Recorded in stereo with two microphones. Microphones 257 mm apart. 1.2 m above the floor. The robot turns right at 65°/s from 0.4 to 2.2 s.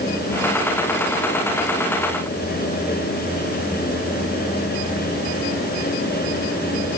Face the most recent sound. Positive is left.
No sound to turn to.